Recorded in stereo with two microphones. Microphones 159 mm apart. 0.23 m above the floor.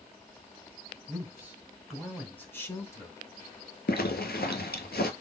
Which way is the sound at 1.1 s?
20° right (ahead or behind).